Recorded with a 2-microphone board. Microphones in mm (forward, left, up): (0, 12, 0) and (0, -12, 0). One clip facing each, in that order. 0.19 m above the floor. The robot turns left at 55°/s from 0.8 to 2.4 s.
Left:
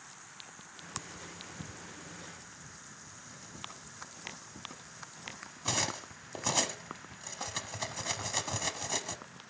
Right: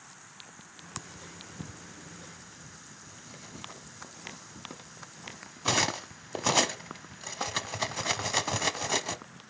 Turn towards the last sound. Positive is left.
turn(degrees=-25)  # may be behind; listen again after turning